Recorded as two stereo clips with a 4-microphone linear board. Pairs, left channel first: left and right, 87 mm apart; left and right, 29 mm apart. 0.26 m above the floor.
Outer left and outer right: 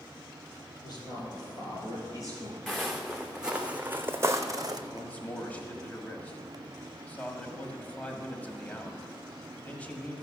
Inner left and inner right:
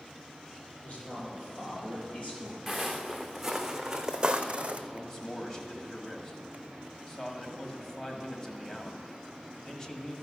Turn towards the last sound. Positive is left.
turn(degrees=15)  # may be behind; listen again after turning